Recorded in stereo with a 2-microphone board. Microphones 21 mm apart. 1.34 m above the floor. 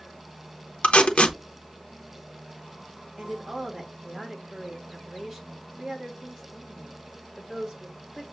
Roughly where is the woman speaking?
Centre.